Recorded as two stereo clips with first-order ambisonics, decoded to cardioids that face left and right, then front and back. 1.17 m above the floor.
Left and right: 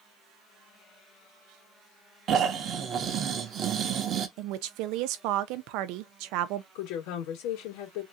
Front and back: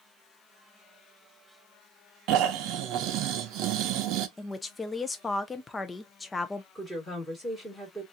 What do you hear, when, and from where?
2.3 s snoring: 145° right, 0.6 m
4.4 s a woman speaking: 80° right, 0.5 m
6.8 s a woman speaking: 85° left, 2 m